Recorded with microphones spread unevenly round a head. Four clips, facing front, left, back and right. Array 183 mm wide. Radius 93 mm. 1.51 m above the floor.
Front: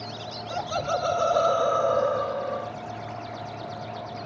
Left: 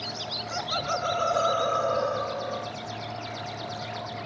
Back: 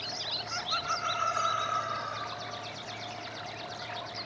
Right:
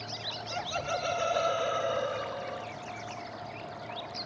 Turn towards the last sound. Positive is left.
turn(degrees=20)